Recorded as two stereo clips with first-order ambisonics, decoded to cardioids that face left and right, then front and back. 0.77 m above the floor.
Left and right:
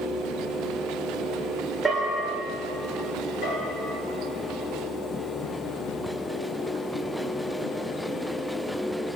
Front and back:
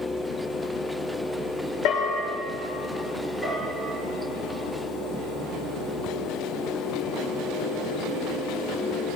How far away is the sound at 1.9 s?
About 2.5 m.